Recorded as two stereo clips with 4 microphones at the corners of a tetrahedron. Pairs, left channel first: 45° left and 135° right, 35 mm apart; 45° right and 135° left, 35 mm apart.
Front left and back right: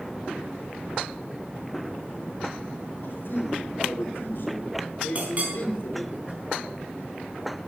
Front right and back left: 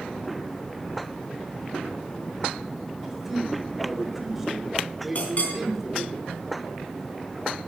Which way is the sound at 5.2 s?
90° right.